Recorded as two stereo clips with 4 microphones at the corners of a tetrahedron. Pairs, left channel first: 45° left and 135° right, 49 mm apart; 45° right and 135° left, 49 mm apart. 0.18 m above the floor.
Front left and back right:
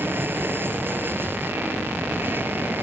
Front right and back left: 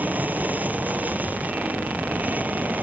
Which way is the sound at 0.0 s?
170° right.